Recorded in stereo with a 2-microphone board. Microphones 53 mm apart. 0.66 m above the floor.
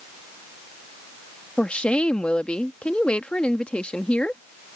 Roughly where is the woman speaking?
Left.